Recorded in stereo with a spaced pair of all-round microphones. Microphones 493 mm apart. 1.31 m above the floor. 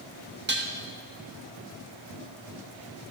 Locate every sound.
0.5 s dishes clattering: 20° right (ahead or behind), 1.2 m